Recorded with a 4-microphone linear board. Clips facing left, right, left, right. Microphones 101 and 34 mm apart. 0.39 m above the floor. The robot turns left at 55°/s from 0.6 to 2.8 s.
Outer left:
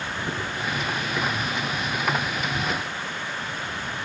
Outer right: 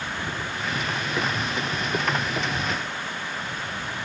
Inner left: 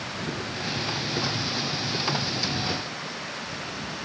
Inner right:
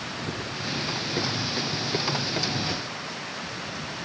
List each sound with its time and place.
0.2 s running footsteps: 15° left (ahead or behind); by 2.6 s 80° right
2.7 s a thud: 5° left (ahead or behind); by 3.2 s 10° left (ahead or behind)